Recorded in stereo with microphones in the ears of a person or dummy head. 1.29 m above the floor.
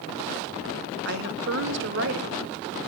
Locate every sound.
1.1 s a woman speaking: 65° right (ahead or behind), 0.9 m